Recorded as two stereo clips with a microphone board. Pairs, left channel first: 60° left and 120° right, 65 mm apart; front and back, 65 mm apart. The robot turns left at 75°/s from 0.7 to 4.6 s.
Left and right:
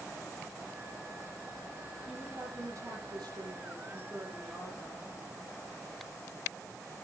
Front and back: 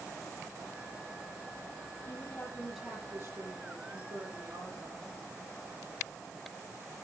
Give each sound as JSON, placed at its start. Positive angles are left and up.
{"t": 2.1, "sound": "a woman speaking", "azimuth_deg": -40, "distance_m": 10.0}